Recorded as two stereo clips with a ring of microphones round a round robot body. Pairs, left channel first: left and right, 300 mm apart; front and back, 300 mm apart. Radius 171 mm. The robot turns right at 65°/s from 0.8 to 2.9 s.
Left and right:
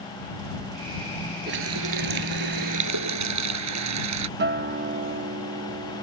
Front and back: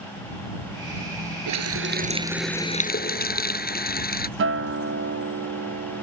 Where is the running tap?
155° right; by 4.3 s 60° right.